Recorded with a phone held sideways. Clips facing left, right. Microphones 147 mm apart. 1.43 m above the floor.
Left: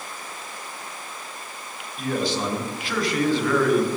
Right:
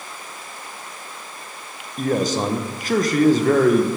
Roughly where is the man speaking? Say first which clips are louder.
Right 5 dB; right.